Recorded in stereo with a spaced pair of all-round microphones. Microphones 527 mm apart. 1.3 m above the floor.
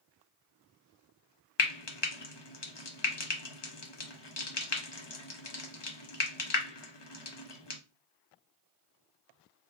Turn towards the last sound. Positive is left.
turn(degrees=50)  # may be behind; listen again after turning